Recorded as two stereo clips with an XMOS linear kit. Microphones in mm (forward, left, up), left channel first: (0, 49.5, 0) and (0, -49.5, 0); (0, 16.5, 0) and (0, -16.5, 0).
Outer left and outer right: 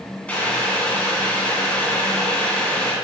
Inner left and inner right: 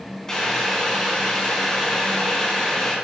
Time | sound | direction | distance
0.3 | boiling | 15° left (ahead or behind) | 2.5 m